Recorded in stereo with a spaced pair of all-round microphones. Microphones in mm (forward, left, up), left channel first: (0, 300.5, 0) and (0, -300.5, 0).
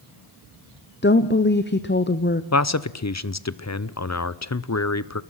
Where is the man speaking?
30° left (ahead or behind), 0.6 m.